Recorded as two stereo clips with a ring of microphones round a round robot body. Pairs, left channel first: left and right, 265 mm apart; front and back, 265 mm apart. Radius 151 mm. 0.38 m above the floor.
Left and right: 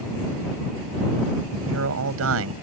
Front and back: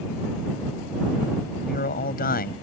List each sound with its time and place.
1.6 s a man speaking: 55° right